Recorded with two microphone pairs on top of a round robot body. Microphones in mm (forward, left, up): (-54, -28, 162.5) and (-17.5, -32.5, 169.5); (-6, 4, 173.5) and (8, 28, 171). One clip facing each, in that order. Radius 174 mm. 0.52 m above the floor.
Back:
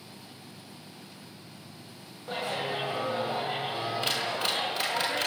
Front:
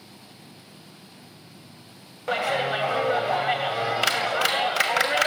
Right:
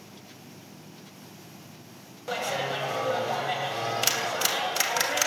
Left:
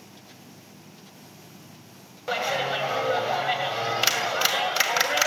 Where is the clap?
15° right, 2.5 m.